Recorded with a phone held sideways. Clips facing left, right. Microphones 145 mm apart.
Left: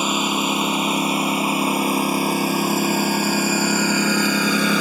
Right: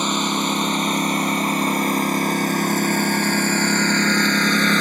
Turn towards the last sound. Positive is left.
turn(degrees=10)  # may be behind; listen again after turning